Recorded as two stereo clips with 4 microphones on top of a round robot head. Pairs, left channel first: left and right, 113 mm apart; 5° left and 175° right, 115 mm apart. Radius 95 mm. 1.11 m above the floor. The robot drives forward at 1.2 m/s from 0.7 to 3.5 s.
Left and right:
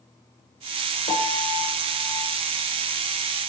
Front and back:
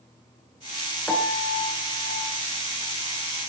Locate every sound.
1.1 s a piano: 80° left, 2.5 m; by 2.3 s 120° left, 2.5 m